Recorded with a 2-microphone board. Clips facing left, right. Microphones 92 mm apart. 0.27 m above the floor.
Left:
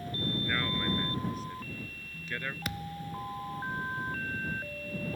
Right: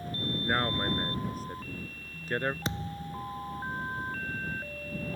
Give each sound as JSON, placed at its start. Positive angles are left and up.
{"t": 0.4, "sound": "a man speaking", "side_deg": -40}
{"t": 2.6, "sound": "a thud", "side_deg": -25}